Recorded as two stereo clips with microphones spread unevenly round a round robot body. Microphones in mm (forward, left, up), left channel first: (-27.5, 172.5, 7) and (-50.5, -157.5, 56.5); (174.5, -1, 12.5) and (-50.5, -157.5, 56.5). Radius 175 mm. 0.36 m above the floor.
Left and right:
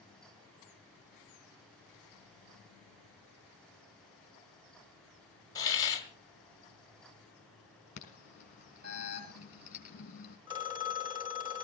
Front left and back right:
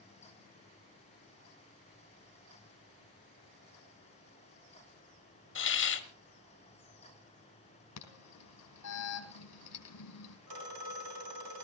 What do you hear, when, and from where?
5.5 s a hiss: 15° left, 1.7 m
8.0 s an alarm: 20° left, 3.5 m
10.5 s a phone ringing: 170° right, 2 m